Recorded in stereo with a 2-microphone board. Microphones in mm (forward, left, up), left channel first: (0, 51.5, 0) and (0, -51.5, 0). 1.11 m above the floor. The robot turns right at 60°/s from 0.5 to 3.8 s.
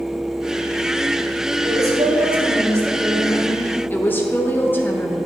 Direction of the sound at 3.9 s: 20° left (ahead or behind).